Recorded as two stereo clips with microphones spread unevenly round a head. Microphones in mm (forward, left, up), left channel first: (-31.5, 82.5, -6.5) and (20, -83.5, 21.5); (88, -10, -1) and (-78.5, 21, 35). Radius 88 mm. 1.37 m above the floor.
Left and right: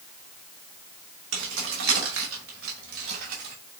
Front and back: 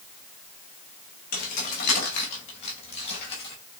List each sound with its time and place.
1.3 s keys jangling: 55° right, 3 m; by 3.5 s 75° right, 4 m